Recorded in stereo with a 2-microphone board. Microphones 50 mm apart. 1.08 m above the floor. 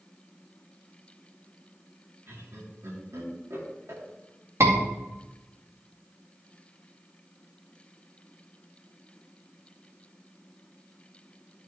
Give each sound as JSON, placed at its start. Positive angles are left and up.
{"t": 2.3, "sound": "laughter", "side_deg": -75, "distance_m": 3.0}
{"t": 4.6, "sound": "a scream", "side_deg": -70, "distance_m": 2.5}